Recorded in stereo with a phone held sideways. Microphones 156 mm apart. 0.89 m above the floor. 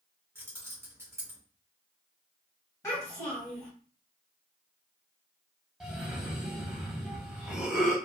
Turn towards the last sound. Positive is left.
turn(degrees=-5)  # may be behind; listen again after turning